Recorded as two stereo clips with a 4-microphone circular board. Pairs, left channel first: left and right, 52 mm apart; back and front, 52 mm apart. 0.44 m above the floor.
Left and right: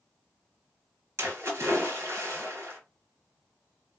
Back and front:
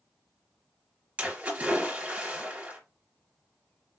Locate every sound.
1.2 s a splash: 65° right, 3 m